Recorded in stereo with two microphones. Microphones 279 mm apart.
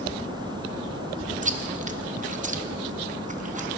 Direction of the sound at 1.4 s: 30° right (ahead or behind).